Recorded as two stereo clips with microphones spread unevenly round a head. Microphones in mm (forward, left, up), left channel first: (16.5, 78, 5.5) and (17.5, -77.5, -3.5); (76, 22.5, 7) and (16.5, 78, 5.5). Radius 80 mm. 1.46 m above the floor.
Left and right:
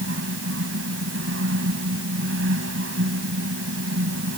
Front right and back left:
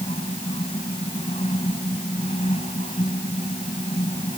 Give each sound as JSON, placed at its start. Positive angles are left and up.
{"t": 0.0, "sound": "a fan", "azimuth_deg": -95}